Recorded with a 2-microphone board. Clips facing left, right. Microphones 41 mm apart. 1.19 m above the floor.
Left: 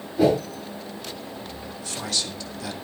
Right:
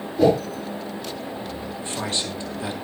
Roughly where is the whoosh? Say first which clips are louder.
Right 2 dB; centre.